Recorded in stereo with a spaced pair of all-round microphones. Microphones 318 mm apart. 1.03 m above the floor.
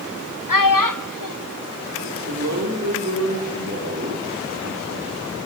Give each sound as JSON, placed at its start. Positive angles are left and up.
{"t": 0.5, "sound": "a child speaking", "side_deg": 85, "distance_m": 1.0}
{"t": 2.0, "sound": "a man speaking", "side_deg": -60, "distance_m": 2.5}